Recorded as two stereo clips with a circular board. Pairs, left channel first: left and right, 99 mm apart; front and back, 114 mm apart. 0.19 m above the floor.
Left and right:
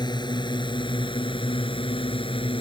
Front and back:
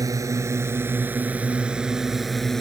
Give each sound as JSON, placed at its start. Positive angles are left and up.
{"t": 0.0, "sound": "a drone", "azimuth_deg": 125}